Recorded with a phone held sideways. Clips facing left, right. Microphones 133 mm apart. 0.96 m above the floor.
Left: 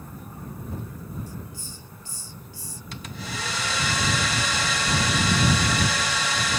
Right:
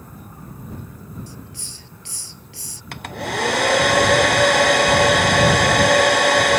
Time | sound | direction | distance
1.3 | a hiss | 75° right (ahead or behind) | ?
2.9 | a hair dryer | 60° right (ahead or behind) | ?